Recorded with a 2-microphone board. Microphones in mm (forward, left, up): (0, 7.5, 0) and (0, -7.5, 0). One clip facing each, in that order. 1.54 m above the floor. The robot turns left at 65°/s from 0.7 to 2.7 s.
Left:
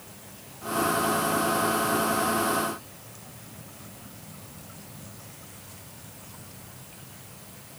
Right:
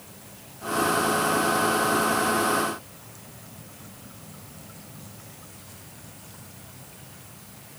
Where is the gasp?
I don't hear a gasp.